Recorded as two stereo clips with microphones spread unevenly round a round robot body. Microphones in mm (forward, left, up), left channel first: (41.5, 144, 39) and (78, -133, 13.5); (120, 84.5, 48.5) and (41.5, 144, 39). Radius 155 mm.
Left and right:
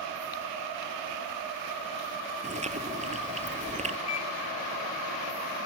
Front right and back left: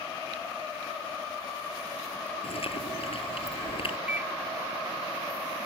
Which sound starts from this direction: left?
A microwave, at 4.1 s.